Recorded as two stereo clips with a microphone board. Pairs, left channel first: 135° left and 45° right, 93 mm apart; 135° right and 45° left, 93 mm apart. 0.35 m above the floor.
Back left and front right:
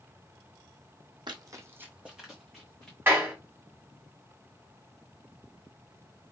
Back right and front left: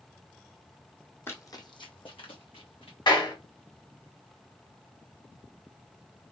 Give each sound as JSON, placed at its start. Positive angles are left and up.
{"t": 1.3, "sound": "running footsteps", "azimuth_deg": -75, "distance_m": 0.8}
{"t": 3.1, "sound": "a clap", "azimuth_deg": -110, "distance_m": 1.8}